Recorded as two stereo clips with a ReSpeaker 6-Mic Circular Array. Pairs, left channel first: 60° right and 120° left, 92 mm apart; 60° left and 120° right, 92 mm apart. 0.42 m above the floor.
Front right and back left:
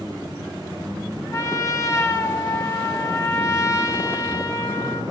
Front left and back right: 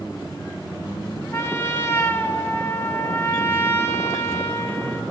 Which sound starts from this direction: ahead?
A trumpet, at 1.3 s.